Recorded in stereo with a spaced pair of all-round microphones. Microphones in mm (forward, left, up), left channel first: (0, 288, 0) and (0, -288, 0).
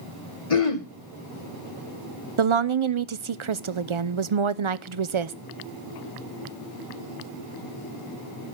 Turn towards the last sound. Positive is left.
turn(degrees=-55)  # may be behind; listen again after turning